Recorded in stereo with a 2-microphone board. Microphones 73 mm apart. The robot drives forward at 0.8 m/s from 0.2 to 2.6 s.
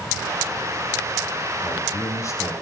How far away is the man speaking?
About 2.0 m.